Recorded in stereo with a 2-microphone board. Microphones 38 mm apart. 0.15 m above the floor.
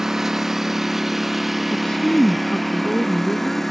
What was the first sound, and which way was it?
A lawn mower, 10° right (ahead or behind).